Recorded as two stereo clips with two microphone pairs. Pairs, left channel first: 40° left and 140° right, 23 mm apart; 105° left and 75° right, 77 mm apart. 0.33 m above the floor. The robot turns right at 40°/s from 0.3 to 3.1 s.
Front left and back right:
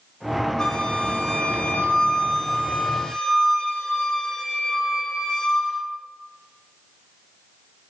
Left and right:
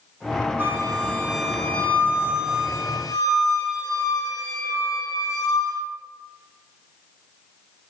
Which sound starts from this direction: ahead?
A flute, at 0.6 s.